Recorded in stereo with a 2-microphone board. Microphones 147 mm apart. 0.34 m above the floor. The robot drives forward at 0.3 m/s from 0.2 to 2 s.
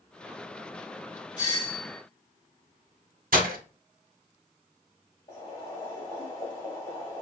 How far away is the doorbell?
About 1.9 m.